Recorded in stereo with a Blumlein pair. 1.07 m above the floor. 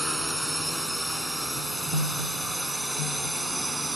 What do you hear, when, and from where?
0.0 s a drone: straight ahead; by 4.0 s 5° right